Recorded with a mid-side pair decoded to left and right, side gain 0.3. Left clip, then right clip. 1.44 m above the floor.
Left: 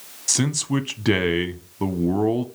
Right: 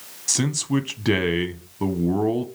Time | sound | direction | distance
0.3 | a man speaking | 20° left | 0.6 m